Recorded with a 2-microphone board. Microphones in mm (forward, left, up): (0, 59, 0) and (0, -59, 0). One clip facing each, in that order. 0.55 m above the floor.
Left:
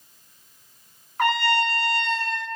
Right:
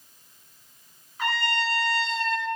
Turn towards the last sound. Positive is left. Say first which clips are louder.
# left 6 dB
turn(degrees=70)  # may be behind; listen again after turning